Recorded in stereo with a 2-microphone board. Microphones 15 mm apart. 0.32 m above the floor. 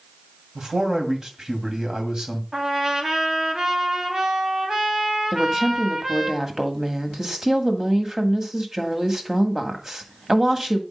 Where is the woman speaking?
30° right (ahead or behind), 1.6 m.